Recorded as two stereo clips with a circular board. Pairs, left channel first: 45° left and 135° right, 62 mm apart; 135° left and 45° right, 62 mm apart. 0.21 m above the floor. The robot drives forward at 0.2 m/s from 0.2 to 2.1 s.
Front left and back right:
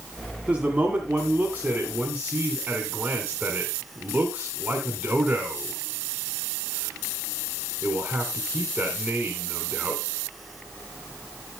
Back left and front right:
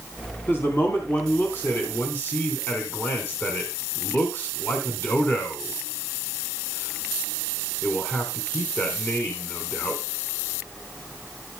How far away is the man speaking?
About 2 m.